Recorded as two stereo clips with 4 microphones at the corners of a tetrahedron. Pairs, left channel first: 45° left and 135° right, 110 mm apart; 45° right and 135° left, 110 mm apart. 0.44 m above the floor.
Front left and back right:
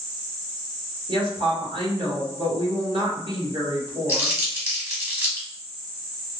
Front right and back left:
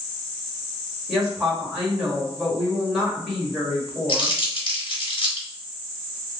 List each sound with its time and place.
1.1 s a woman speaking: 140° right, 1.7 m
4.1 s crumpling: 65° right, 1.5 m